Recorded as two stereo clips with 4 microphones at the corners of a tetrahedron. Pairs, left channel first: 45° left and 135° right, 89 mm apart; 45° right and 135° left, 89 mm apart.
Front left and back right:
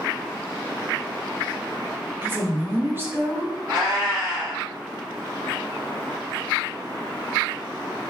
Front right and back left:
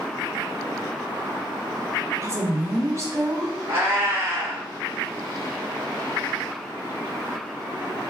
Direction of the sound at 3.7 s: 165° right.